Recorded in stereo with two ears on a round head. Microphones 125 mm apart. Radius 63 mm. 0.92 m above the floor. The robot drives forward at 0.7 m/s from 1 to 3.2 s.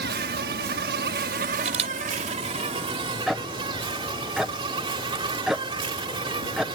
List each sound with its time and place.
0.0 s an insect: 80° right; by 6.8 s 40° right (ahead or behind)
1.6 s a camera shutter: 55° right (ahead or behind); by 1.9 s 50° right (ahead or behind)
3.3 s ticking: centre (ahead or behind)